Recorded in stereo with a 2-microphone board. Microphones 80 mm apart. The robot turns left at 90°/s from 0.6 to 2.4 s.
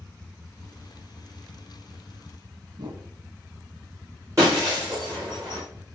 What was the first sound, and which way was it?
A whoosh, 65° right (ahead or behind).